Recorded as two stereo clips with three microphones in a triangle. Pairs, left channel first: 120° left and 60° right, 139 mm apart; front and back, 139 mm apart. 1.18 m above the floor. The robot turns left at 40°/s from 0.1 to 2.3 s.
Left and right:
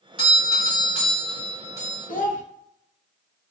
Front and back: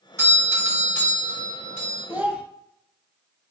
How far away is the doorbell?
About 1.7 m.